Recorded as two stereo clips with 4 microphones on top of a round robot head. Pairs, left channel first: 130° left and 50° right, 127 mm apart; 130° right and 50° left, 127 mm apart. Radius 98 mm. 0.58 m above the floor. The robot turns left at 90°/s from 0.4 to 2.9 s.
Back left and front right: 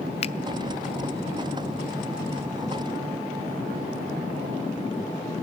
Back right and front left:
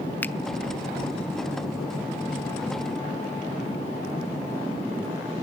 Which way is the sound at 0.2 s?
155° left.